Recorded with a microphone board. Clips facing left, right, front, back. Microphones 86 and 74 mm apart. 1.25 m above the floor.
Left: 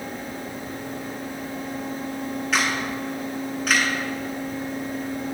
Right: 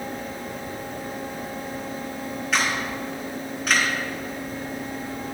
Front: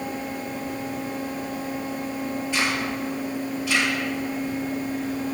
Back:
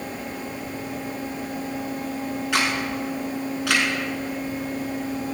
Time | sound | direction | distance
2.5 | a camera shutter | straight behind | 6 m